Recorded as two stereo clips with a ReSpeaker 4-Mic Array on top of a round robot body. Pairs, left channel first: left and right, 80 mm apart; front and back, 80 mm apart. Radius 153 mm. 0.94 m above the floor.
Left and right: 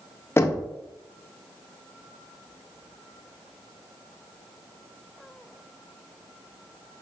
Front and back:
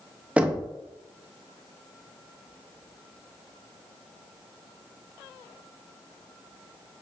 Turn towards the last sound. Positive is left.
turn(degrees=115)